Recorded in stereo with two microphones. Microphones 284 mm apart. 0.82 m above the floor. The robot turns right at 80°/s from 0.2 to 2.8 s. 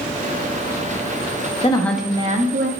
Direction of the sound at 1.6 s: 155° left.